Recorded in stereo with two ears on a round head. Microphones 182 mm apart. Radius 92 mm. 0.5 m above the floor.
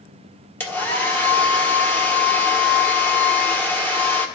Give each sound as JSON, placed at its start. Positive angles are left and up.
{"t": 0.6, "sound": "a hair dryer", "side_deg": 10, "distance_m": 1.3}